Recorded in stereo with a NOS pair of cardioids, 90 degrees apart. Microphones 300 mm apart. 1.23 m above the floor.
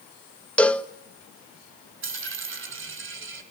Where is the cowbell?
5° left, 1.2 m.